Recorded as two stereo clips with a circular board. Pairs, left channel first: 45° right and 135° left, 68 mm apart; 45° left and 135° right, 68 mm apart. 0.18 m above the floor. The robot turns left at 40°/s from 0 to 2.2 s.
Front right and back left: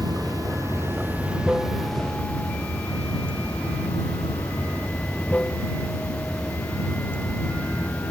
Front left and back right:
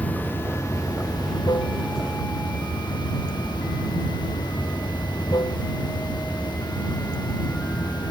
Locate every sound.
0.0 s running water: 115° left; by 8.1 s 30° left